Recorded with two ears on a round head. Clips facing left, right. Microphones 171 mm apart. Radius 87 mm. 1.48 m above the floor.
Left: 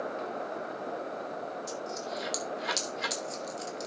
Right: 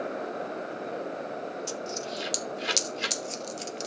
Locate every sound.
1.7 s a dropped coin: 30° right (ahead or behind), 0.8 m